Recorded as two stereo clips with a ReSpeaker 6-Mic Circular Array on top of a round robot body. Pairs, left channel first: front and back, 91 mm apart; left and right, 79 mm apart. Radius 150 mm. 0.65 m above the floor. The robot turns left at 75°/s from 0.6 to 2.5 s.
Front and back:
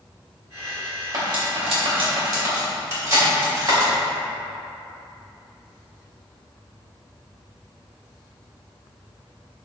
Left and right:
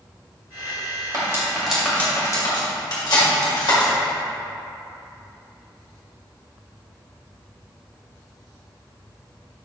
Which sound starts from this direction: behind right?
Cutlery clinking, at 1.1 s.